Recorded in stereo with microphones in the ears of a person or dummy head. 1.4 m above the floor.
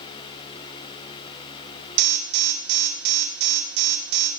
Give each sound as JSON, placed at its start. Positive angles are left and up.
{"t": 2.0, "sound": "an alarm", "side_deg": -60, "distance_m": 3.0}